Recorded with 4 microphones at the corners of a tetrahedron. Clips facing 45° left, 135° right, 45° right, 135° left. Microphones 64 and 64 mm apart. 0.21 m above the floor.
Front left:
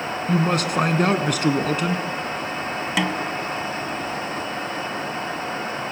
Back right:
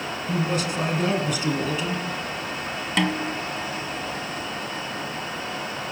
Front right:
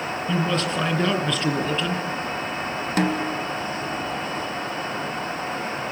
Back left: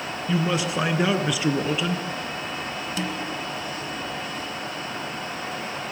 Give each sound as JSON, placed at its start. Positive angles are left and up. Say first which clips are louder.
{"t": 0.3, "sound": "a man speaking", "louder": "front left 4 dB, even", "azimuth_deg": 60, "distance_m": 2.5}
{"t": 3.0, "sound": "a snare drum", "louder": "back right 1 dB, front right 9 dB", "azimuth_deg": -40, "distance_m": 1.4}